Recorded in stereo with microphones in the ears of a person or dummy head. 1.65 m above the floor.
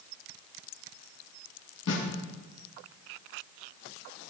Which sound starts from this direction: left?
A snare drum, at 1.9 s.